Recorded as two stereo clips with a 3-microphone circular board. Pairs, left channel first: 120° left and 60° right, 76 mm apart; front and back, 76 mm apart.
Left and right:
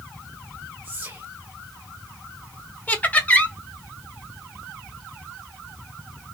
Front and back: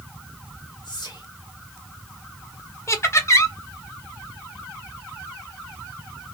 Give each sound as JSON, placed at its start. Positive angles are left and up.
{"t": 0.8, "sound": "whispering", "azimuth_deg": 5, "distance_m": 1.2}
{"t": 2.9, "sound": "laughter", "azimuth_deg": 50, "distance_m": 0.9}